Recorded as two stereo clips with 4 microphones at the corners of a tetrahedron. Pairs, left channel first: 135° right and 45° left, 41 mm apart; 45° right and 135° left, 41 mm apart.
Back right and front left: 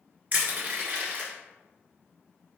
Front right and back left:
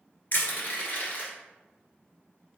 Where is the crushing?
5° right, 1.7 m.